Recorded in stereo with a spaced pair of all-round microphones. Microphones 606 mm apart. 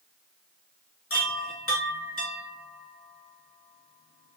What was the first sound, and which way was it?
A chime, 20° left (ahead or behind).